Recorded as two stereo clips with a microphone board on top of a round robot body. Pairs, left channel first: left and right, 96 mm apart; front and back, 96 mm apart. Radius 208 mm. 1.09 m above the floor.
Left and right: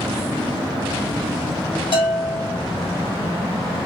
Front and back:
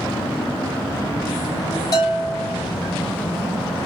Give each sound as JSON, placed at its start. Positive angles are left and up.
{"t": 1.9, "sound": "a bell", "azimuth_deg": 55, "distance_m": 0.5}